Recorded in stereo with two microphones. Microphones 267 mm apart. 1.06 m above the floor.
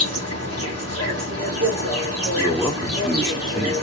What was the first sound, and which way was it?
An insect, 60° right (ahead or behind).